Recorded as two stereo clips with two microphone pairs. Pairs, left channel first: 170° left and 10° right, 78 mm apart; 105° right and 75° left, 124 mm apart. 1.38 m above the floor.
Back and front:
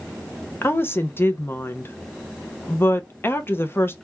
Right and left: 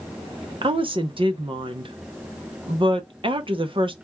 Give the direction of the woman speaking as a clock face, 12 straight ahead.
8 o'clock.